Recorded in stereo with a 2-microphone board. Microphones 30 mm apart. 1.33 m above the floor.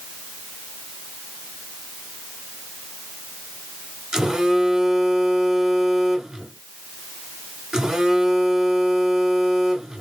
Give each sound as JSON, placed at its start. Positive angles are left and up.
{"t": 4.1, "sound": "a phone buzzing", "side_deg": -20, "distance_m": 1.1}